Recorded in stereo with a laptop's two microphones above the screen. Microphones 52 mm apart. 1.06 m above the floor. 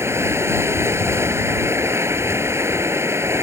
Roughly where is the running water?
Right.